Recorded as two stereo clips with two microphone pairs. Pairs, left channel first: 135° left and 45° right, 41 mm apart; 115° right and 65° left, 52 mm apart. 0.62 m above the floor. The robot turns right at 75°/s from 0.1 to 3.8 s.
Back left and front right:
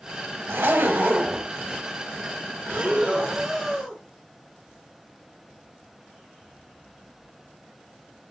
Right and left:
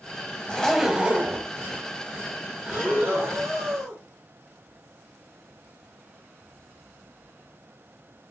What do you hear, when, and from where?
0.5 s a zipper: 45° right, 0.7 m; by 1.5 s 30° left, 0.7 m
2.6 s breathing: 10° right, 1.9 m; by 4.0 s 75° left, 1.9 m